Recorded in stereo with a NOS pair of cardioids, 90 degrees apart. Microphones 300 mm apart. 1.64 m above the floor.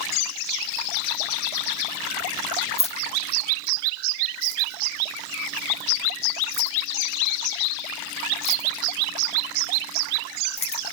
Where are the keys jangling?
20° left, 2.0 m.